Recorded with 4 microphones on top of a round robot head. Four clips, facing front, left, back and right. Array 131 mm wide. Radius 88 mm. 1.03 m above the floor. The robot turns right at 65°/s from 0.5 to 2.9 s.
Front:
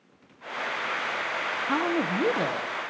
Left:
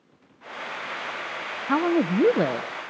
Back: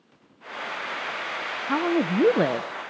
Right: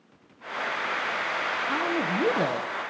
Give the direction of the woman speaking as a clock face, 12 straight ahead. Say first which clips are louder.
Left 8 dB, back 4 dB; 9 o'clock.